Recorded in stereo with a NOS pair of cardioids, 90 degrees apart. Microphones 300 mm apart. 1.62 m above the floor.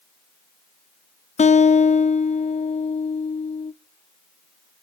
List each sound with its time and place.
1.4 s a guitar: 25° left, 0.6 m